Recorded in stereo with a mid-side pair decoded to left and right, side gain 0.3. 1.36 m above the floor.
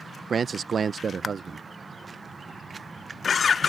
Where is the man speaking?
65° right.